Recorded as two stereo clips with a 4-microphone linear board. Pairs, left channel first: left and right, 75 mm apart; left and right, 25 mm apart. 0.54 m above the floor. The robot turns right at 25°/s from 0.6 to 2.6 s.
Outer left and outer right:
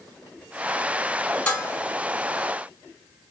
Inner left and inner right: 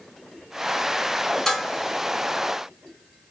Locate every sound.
1.5 s dishes clattering: 15° left (ahead or behind), 3 m; by 1.7 s 5° left (ahead or behind), 3 m